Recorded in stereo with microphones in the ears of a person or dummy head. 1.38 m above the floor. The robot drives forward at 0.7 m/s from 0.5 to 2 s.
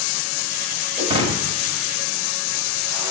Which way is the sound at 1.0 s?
25° right (ahead or behind).